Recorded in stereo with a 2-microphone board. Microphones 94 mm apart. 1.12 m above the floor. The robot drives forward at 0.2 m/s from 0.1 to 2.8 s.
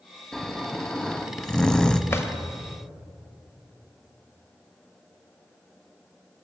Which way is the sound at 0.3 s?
5° left (ahead or behind).